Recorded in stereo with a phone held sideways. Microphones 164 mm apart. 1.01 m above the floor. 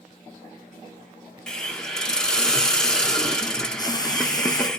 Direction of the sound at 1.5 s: 5° left (ahead or behind).